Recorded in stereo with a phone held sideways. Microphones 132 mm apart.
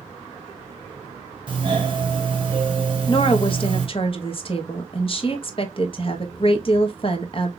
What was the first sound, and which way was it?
A doorbell, 35° right (ahead or behind).